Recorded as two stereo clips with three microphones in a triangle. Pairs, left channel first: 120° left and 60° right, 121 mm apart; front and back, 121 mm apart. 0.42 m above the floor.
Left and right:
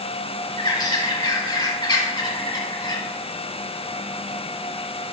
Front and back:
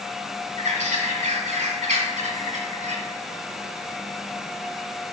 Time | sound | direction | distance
0.6 | a bird | 175° left | 1.2 m